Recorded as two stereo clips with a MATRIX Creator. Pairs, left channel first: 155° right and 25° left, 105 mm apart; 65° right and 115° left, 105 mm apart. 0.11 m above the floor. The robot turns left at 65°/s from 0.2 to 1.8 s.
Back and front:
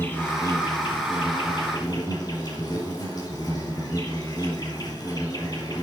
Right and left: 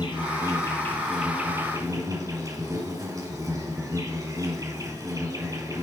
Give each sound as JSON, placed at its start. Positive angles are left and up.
{"t": 0.0, "sound": "an insect", "azimuth_deg": -95, "distance_m": 3.0}